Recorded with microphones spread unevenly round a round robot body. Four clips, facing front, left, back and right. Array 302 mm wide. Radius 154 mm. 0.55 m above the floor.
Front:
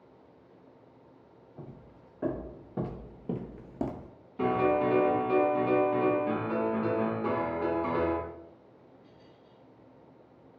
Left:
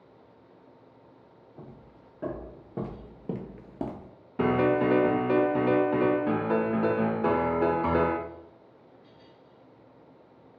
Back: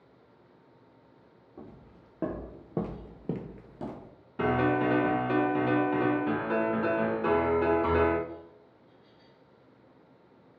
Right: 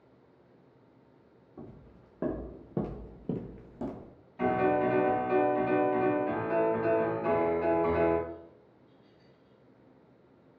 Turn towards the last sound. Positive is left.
turn(degrees=100)